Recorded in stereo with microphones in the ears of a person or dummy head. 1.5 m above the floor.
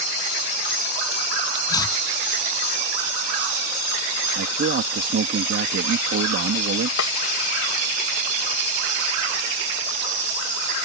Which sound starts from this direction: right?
A man speaking, at 4.3 s.